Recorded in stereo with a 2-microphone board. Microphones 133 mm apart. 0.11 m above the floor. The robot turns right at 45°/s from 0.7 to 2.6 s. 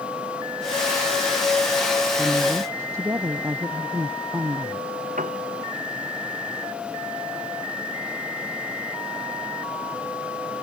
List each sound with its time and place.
2.2 s a woman speaking: 5° right (ahead or behind); by 4.9 s 20° right (ahead or behind)
5.2 s a piano: 80° right